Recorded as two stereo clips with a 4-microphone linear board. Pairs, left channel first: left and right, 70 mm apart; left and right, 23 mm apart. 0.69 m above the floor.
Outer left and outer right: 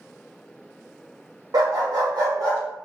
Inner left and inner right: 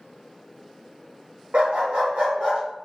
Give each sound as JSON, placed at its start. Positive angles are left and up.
{"t": 1.5, "sound": "a dog barking", "side_deg": -70, "distance_m": 0.8}